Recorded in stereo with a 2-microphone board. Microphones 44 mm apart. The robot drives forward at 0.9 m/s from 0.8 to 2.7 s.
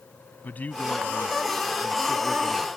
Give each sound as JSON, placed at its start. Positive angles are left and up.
{"t": 0.4, "sound": "a man speaking", "side_deg": 40}